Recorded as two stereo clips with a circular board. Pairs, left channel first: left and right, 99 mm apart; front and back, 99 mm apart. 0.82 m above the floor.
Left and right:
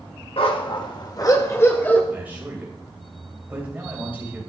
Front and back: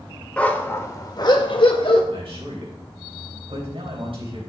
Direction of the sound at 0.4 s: 75° left.